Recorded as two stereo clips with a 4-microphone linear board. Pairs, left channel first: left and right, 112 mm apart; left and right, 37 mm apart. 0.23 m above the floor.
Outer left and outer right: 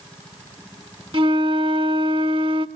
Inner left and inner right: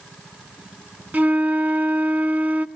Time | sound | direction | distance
1.1 | a flute | 50° right (ahead or behind) | 0.7 m